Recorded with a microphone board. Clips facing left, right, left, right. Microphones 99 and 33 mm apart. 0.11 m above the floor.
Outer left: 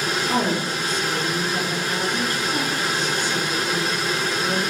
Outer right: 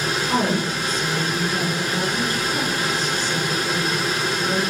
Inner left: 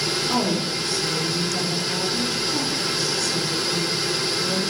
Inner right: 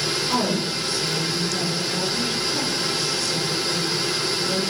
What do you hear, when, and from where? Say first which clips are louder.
0.3 s a woman speaking: outer right 2 dB, even; 35° right (ahead or behind), 1.6 m